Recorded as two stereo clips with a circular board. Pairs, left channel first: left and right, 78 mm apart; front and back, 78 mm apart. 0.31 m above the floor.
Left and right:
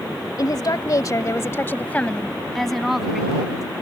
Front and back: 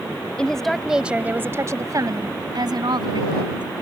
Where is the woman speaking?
75° left; by 3.6 s 170° right.